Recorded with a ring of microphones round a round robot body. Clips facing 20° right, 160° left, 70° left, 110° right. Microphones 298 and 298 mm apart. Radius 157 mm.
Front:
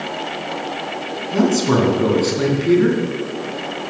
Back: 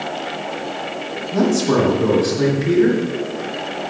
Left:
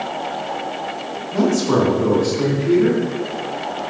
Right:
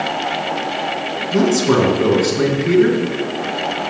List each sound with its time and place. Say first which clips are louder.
1.3 s a man speaking: even, right 2 dB; 75° right, 3 m